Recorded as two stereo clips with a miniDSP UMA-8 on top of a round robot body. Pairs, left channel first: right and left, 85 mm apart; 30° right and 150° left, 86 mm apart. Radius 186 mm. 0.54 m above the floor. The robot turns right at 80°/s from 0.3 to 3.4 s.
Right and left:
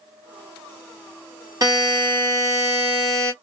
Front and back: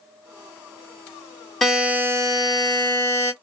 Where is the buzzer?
55° left, 1.8 m; by 3.3 s 165° right, 1.8 m.